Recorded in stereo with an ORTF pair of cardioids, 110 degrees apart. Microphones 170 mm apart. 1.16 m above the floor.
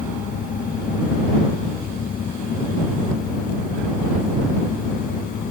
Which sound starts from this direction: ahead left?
A fan, at 0.0 s.